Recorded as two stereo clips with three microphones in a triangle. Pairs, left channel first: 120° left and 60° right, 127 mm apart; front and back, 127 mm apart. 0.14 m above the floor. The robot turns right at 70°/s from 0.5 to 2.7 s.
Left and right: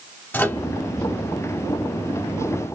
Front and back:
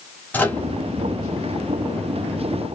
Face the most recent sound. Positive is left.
turn(degrees=-145)